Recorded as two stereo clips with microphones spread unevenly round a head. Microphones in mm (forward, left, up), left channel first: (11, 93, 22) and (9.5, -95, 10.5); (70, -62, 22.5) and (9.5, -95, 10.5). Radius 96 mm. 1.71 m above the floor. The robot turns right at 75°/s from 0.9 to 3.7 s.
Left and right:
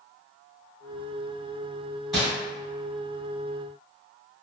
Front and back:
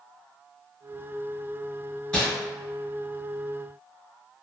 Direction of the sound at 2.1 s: 5° left.